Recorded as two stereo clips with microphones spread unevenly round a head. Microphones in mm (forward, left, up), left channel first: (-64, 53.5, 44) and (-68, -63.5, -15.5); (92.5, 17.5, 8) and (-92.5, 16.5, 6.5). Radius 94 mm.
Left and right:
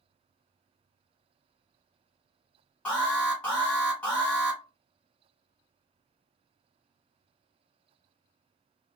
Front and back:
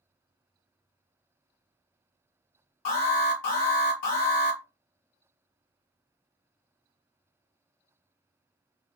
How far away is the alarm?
About 1.3 m.